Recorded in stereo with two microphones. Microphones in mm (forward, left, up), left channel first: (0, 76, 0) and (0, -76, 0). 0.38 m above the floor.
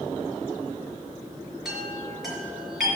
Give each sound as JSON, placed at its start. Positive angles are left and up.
{"t": 1.6, "sound": "a chime", "side_deg": -5, "distance_m": 4.0}